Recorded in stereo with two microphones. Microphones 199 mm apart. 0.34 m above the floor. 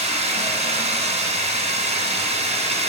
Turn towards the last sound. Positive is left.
turn(degrees=-35)  # may be behind; listen again after turning